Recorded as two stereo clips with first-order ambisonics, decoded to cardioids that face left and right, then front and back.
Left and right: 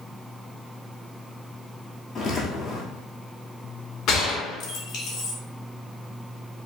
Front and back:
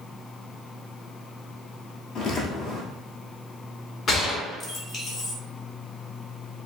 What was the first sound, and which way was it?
Footsteps, 30° left.